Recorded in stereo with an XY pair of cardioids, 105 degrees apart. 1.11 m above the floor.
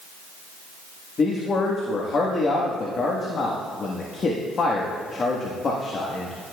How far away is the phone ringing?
No phone ringing in this recording.